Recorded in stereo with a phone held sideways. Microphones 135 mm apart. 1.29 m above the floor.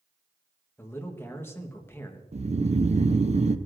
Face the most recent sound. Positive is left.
turn(degrees=-55)  # may be behind; listen again after turning